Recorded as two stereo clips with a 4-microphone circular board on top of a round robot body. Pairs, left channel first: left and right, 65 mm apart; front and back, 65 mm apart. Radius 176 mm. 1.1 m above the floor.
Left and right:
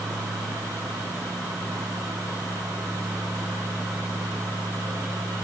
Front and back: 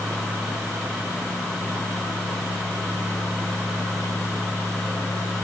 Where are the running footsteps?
No running footsteps in this recording.